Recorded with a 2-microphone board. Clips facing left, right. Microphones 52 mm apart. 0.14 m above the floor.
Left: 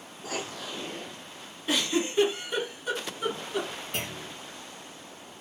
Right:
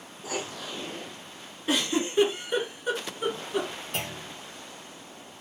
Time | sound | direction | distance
0.2 | writing | 10° right (ahead or behind) | 0.7 m
1.7 | a giggle | 20° right (ahead or behind) | 2 m
3.9 | a clunk | centre (ahead or behind) | 1.5 m